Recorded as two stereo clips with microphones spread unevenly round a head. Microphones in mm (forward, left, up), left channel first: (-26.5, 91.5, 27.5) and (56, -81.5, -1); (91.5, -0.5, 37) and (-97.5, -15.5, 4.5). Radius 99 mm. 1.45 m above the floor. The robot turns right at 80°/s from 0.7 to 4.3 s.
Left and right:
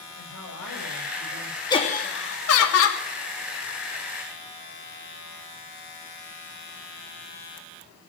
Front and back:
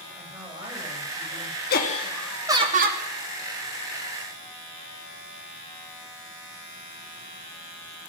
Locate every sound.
0.1 s a woman speaking: 100° left, 8.5 m; by 1.6 s 175° left, 8.5 m
1.7 s laughter: 45° left, 3 m; by 3.0 s 150° left, 3 m